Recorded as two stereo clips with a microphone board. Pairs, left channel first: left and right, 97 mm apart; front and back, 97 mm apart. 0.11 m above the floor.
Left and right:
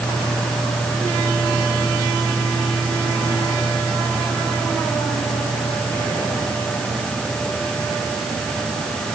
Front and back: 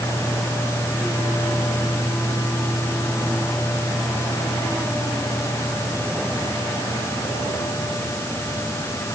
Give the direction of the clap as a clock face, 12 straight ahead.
No clap in this recording.